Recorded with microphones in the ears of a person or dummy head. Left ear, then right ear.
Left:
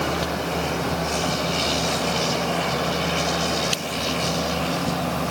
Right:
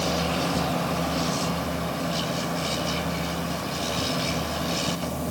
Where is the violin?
I don't hear a violin.